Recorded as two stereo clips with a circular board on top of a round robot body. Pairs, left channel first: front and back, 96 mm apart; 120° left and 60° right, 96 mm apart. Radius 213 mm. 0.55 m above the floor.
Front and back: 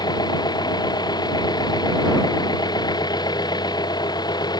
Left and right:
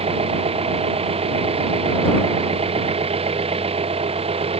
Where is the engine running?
45° right.